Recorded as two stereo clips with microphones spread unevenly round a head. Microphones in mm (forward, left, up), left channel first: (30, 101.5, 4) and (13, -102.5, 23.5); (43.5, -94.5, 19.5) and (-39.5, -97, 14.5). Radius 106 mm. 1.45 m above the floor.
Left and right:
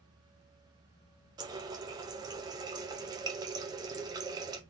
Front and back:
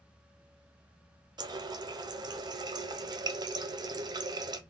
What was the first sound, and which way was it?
A running tap, 160° right.